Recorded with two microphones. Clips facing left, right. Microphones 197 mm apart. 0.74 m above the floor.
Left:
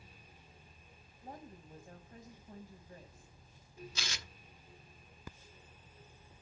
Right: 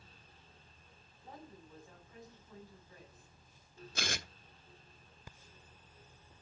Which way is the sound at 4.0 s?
55° right (ahead or behind).